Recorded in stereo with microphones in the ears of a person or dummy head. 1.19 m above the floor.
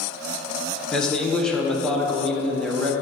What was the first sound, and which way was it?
A man speaking, 5° left (ahead or behind).